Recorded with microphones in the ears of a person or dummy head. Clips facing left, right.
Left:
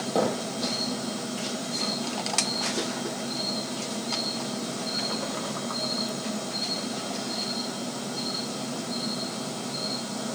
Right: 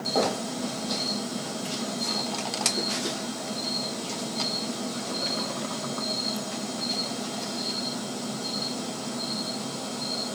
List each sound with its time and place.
0.1 s a thud: 20° left (ahead or behind), 9.5 m